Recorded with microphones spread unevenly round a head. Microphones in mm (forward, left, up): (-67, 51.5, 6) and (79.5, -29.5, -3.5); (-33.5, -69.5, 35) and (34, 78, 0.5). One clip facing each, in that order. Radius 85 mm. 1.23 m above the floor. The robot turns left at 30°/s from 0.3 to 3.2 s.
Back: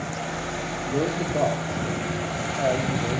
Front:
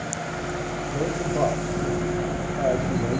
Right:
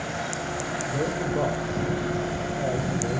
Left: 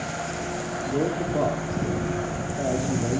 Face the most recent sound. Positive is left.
turn(degrees=25)